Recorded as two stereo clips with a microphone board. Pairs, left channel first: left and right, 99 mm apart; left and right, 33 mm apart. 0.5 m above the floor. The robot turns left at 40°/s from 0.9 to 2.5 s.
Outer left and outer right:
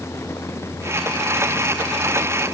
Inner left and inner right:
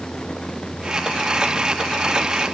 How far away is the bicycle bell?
I don't hear a bicycle bell.